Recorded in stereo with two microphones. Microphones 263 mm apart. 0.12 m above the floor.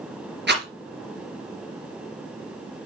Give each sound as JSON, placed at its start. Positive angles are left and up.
{"t": 0.5, "sound": "a rattle", "side_deg": -40, "distance_m": 2.5}